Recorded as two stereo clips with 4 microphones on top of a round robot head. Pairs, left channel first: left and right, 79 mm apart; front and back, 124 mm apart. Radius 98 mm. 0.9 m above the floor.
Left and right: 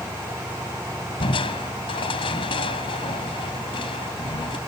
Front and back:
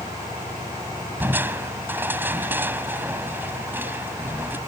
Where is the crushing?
105° left.